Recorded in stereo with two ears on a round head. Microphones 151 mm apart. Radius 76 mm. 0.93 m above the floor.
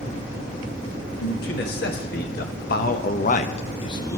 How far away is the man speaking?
About 1.6 m.